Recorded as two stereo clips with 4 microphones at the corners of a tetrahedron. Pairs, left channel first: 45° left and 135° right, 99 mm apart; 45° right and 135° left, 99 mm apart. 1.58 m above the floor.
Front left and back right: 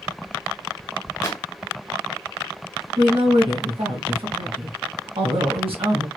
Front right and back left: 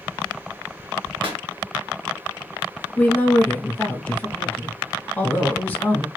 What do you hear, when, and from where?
1.2 s a pop: 100° left, 1.4 m
3.0 s a woman speaking: 115° right, 2 m